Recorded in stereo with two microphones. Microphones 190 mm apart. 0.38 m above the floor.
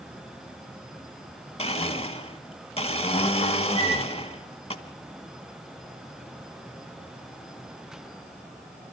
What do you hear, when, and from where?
1.6 s a blender: 35° left (ahead or behind), 1.4 m
3.8 s a flute: 30° left (ahead or behind), 9 m